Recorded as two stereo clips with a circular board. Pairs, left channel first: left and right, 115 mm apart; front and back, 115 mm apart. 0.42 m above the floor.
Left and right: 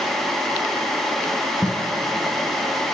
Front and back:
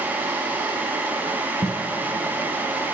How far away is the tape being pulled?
About 2.5 m.